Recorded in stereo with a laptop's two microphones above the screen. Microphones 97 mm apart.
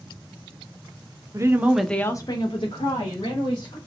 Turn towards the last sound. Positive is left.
turn(degrees=80)